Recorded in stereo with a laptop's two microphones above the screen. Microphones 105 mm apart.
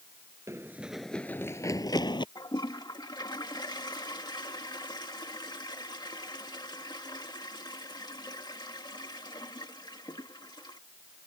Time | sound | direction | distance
0.5 | running footsteps | 30° right (ahead or behind) | ?
2.4 | a toilet flushing | 40° left (ahead or behind) | ?